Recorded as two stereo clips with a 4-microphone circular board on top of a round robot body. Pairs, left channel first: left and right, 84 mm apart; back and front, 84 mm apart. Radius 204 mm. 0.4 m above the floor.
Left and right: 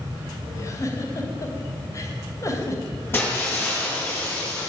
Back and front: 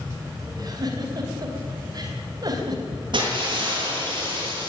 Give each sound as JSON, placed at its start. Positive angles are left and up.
{"t": 0.6, "sound": "a giggle", "azimuth_deg": 40, "distance_m": 4.0}
{"t": 3.1, "sound": "breaking glass", "azimuth_deg": 30, "distance_m": 8.5}